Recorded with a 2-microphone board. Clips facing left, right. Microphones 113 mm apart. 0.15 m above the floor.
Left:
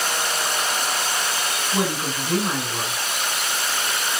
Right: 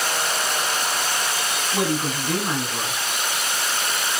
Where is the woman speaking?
25° left (ahead or behind), 1.3 m.